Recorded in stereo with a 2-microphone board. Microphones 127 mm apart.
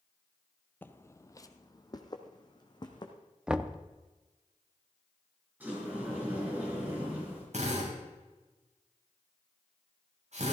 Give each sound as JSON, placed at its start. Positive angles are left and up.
{"t": 0.8, "sound": "footsteps", "side_deg": 15, "distance_m": 0.7}
{"t": 3.5, "sound": "knocking", "side_deg": -5, "distance_m": 0.6}
{"t": 5.6, "sound": "a sliding door", "side_deg": -15, "distance_m": 5.5}
{"t": 7.5, "sound": "a drill", "side_deg": -60, "distance_m": 5.0}